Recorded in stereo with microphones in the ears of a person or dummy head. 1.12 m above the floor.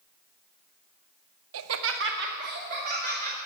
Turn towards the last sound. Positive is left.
turn(degrees=-45)  # may be behind; listen again after turning